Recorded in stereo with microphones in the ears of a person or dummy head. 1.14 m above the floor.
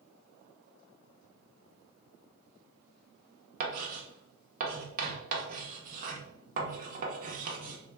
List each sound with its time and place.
3.6 s writing: 50° right (ahead or behind), 0.7 m